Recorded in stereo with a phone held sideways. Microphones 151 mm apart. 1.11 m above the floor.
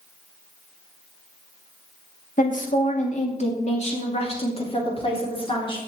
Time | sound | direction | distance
2.4 | a woman speaking | 60° left (ahead or behind) | 2 m